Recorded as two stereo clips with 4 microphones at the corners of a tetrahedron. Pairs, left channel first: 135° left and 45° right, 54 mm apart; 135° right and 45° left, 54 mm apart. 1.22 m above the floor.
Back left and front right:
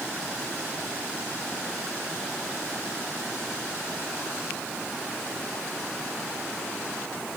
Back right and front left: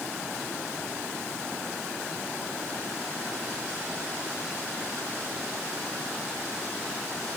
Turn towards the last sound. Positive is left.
No sound to turn to.